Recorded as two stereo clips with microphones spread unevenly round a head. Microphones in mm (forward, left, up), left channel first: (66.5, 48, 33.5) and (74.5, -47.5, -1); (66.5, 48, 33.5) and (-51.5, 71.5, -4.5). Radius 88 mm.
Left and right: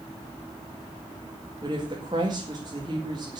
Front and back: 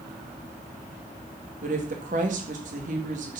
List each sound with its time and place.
1.6 s a woman speaking: 150° right, 2 m